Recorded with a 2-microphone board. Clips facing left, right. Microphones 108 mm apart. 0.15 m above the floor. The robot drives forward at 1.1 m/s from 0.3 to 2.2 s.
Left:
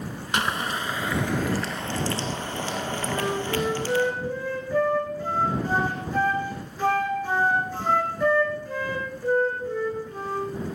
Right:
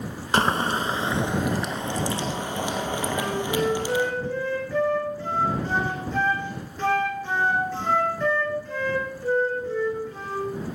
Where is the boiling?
35° right (ahead or behind), 1.0 m; by 4.1 s 15° right (ahead or behind), 2.5 m.